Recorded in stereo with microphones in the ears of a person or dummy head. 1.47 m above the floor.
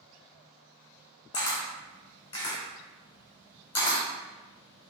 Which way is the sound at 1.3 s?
30° left (ahead or behind).